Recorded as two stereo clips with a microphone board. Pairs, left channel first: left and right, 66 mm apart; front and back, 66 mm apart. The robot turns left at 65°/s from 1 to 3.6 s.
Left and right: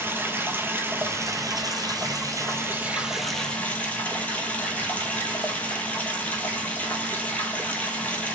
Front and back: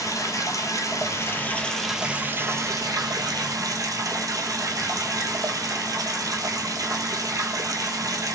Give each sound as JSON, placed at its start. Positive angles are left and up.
{"t": 0.0, "sound": "running water", "azimuth_deg": -35, "distance_m": 0.9}